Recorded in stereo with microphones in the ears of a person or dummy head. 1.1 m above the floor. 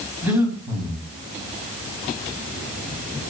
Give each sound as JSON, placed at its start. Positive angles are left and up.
{"t": 0.2, "sound": "breathing", "side_deg": -10, "distance_m": 3.5}